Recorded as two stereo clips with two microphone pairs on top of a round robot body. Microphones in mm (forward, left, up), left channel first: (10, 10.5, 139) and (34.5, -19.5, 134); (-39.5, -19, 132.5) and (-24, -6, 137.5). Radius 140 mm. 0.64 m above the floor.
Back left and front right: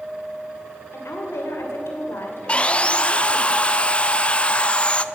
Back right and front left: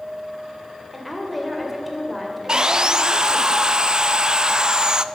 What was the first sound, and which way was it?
A woman speaking, 130° left.